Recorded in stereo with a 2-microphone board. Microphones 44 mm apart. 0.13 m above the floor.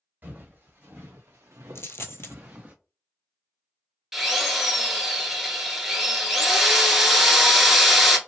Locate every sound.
0.2 s footsteps: 45° right (ahead or behind), 1.4 m; by 2.8 s 35° right (ahead or behind), 0.8 m
1.8 s a dropped coin: 75° left (ahead or behind), 0.5 m
4.1 s a drill: 5° right (ahead or behind), 0.7 m